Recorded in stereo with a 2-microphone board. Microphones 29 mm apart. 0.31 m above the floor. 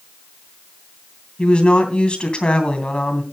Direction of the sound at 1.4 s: 40° left (ahead or behind).